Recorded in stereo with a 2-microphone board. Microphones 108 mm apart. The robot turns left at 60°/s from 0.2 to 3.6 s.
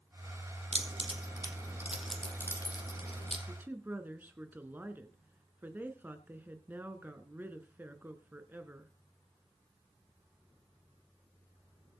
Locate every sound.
0.7 s keys jangling: 70° right (ahead or behind), 3 m; by 3.4 s 70° left (ahead or behind), 3 m
3.5 s a woman speaking: 20° right (ahead or behind), 1.8 m; by 8.9 s 15° right (ahead or behind), 1.8 m